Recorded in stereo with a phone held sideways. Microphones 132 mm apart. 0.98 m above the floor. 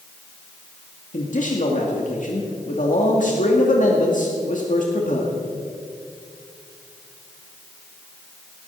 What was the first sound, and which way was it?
A man speaking, 70° left (ahead or behind).